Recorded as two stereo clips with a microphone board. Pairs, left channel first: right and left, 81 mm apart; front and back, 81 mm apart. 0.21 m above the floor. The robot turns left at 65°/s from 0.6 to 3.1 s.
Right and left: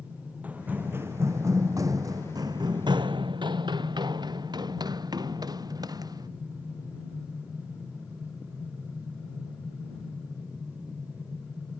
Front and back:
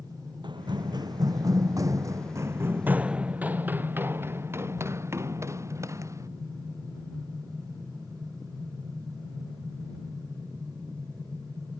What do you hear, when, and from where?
0.4 s running footsteps: 160° left; by 6.3 s 130° left